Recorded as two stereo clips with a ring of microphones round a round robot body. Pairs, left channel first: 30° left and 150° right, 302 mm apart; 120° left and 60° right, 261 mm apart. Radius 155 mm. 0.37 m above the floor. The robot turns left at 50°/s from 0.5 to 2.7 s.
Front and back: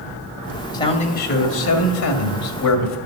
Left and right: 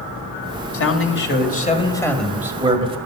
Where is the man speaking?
105° left, 2.0 m; by 3.0 s 10° left, 2.0 m.